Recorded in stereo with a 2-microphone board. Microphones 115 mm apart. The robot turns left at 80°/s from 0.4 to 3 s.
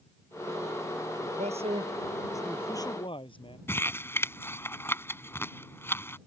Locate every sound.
1.2 s a man speaking: 85° right; by 3.6 s 130° left
3.7 s crumpling: 20° left (ahead or behind)